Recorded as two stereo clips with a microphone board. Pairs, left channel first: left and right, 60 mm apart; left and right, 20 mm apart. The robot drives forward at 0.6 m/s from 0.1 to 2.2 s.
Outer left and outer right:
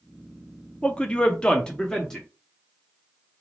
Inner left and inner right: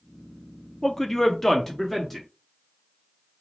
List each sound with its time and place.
0.8 s a man speaking: 20° left (ahead or behind), 0.5 m; by 2.3 s 10° left (ahead or behind), 0.9 m